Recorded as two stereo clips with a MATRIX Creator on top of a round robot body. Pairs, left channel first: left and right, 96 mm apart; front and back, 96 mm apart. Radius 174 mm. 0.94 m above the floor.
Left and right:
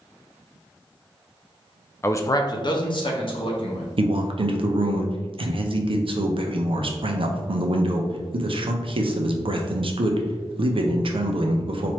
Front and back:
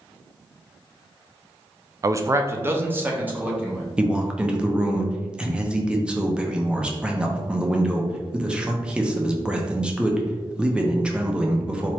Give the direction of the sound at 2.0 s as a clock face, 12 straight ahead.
7 o'clock.